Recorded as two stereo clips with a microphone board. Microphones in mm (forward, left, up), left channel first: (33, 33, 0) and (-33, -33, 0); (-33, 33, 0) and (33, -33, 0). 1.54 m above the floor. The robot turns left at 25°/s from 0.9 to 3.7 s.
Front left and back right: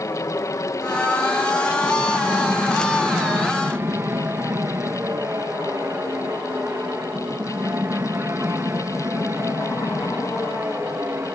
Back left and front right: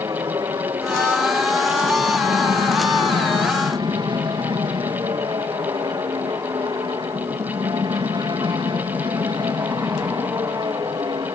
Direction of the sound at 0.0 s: 5° right.